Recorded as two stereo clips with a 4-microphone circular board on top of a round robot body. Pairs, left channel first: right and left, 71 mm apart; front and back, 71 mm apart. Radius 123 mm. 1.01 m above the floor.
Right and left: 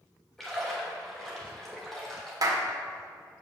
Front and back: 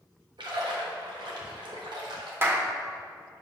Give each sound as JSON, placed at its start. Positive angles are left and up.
{"t": 0.4, "sound": "a splash", "azimuth_deg": -175, "distance_m": 1.2}
{"t": 2.4, "sound": "a clap", "azimuth_deg": 120, "distance_m": 1.1}